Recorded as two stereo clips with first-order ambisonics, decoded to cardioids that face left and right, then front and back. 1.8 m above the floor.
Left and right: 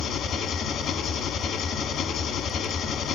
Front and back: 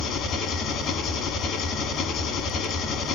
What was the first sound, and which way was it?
An engine running, 40° left.